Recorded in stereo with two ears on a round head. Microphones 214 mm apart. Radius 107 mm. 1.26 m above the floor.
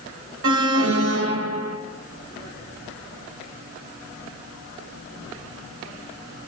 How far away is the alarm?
About 1.2 m.